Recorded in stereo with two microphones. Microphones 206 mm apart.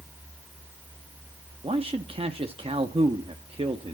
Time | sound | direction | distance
1.6 | a man speaking | 30° right (ahead or behind) | 0.7 m